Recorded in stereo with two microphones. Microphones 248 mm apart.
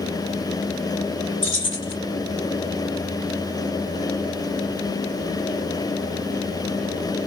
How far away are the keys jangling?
About 1.6 m.